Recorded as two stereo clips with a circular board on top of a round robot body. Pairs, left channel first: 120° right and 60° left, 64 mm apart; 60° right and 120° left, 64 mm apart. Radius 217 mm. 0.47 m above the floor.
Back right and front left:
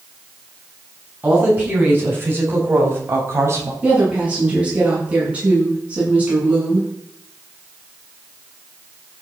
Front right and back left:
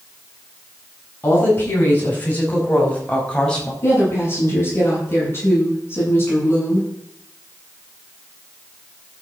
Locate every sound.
1.2 s a woman speaking: 5° right, 7 m; by 3.7 s 15° left, 4.5 m
3.8 s a woman speaking: 10° right, 7.5 m